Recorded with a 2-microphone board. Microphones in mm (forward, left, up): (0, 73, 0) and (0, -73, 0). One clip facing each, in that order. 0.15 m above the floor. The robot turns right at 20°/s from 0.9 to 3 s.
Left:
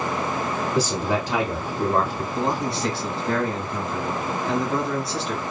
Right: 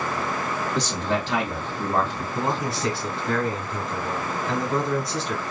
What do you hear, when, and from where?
0.8 s a man speaking: 5° left (ahead or behind), 1.4 m; by 2.2 s 20° left (ahead or behind), 1.4 m
2.4 s a man speaking: 5° right (ahead or behind), 1.7 m; by 5.4 s centre (ahead or behind), 1.7 m